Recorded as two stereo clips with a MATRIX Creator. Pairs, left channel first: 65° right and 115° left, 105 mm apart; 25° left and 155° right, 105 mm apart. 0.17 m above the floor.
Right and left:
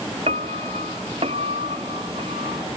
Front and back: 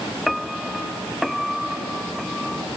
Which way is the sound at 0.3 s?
115° left.